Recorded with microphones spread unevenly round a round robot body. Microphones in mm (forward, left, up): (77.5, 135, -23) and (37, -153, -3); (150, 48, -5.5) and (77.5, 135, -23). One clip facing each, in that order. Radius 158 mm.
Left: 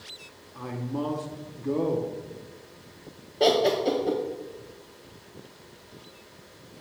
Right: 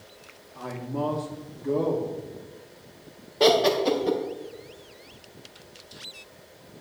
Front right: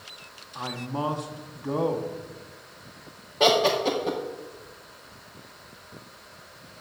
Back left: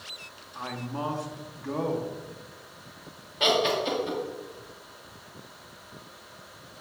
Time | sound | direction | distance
0.6 | a man speaking | 15° left | 0.7 m
3.4 | laughter | 30° right | 0.6 m